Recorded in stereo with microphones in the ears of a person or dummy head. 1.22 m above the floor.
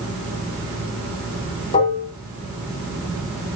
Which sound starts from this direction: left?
Dishes clattering, at 1.7 s.